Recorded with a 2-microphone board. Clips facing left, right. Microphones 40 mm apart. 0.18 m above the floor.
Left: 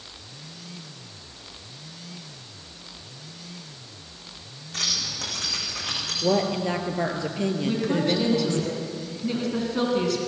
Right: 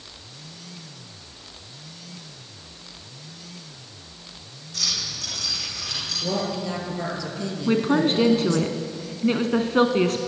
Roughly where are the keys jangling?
Left.